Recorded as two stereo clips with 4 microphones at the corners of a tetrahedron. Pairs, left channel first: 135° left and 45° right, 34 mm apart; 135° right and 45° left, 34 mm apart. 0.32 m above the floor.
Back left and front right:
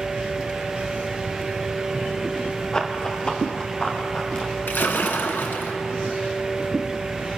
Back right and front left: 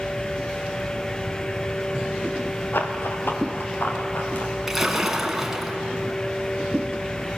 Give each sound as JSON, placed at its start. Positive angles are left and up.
{"t": 2.7, "sound": "running footsteps", "azimuth_deg": -155, "distance_m": 2.5}
{"t": 4.7, "sound": "a splash", "azimuth_deg": 125, "distance_m": 1.8}